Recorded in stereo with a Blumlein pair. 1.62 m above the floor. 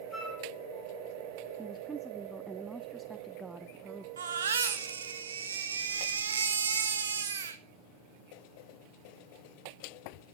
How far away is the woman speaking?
About 0.6 m.